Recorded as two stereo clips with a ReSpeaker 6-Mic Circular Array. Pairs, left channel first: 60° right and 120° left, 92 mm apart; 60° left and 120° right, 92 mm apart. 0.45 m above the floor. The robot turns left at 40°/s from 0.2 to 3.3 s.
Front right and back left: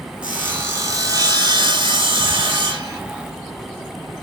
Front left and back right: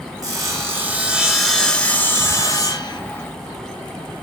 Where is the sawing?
165° right, 1.0 m; by 3.0 s 85° left, 1.0 m.